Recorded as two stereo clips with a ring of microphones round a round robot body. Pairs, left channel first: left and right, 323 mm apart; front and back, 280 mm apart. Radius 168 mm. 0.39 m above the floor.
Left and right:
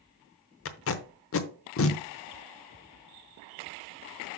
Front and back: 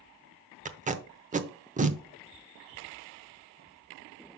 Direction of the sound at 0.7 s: 125° left.